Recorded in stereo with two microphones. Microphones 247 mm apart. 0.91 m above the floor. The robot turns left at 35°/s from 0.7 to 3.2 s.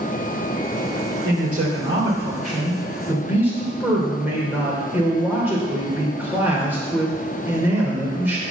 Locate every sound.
1.2 s a man speaking: 105° right, 2.5 m; by 8.4 s 170° right, 2.5 m